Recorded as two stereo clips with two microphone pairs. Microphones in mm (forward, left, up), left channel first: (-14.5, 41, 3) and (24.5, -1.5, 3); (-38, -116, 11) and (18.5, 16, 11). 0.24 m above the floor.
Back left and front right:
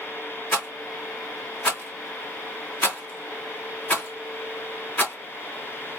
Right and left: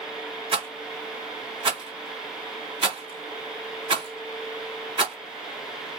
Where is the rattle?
95° left, 1.6 m.